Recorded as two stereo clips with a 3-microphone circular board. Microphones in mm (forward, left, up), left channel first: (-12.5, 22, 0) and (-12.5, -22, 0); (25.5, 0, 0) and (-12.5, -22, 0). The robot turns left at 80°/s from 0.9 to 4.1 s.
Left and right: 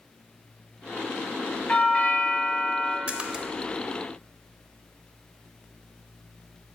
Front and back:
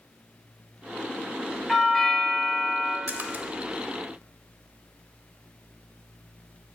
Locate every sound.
1.7 s a doorbell: 115° left, 1.5 m; by 3.0 s 10° left, 1.5 m
3.1 s a splash: 135° right, 0.6 m; by 3.5 s 170° right, 0.6 m